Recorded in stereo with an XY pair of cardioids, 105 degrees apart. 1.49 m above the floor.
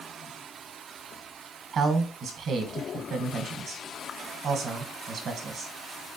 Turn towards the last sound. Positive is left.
turn(degrees=-60)